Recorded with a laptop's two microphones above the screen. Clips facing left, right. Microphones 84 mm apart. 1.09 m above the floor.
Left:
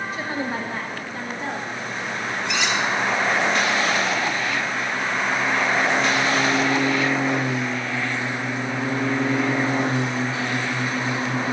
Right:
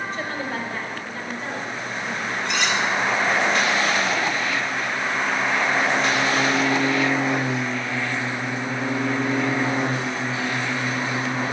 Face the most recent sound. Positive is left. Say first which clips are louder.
# even
turn(degrees=5)  # may be behind; listen again after turning